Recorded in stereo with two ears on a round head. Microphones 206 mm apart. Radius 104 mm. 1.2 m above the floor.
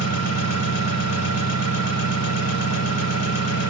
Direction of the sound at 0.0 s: 80° left.